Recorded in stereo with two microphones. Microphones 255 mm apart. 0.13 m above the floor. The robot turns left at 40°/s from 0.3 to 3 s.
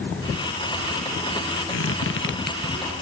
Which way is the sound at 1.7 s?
70° left (ahead or behind).